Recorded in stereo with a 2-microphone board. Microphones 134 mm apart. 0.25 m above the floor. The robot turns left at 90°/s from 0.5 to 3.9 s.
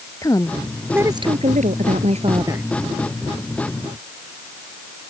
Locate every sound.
0.2 s a woman speaking: 25° left; by 2.6 s 170° right